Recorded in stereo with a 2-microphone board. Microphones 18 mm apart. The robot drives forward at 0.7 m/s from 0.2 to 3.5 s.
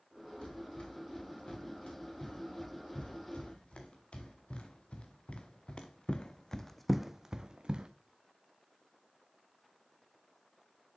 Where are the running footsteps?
60° left (ahead or behind), 5 m; by 7.9 s 55° right (ahead or behind), 0.8 m.